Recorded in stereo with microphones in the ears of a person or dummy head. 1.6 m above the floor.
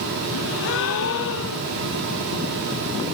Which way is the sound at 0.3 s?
70° left (ahead or behind).